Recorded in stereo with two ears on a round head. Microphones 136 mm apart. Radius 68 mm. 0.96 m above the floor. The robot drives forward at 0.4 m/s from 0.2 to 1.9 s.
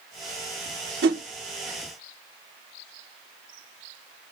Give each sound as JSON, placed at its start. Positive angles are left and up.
{"t": 1.0, "sound": "a whoosh", "side_deg": -80, "distance_m": 1.3}